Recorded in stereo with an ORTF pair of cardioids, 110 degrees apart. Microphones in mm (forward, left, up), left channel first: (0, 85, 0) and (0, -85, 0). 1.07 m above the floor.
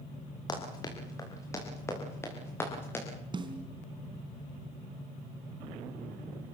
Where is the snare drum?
30° right, 3 m.